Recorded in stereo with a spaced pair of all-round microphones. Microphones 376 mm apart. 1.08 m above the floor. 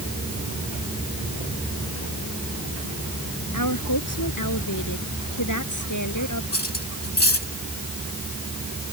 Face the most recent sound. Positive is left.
turn(degrees=80)